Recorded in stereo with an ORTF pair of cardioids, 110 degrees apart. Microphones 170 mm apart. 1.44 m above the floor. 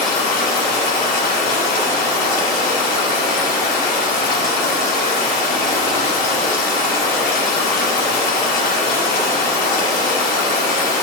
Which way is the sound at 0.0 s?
65° left.